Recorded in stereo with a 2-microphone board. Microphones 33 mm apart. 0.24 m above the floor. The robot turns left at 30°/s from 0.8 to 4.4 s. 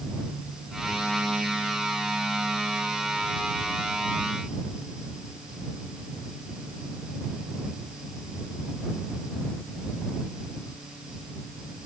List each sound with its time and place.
Only background noise.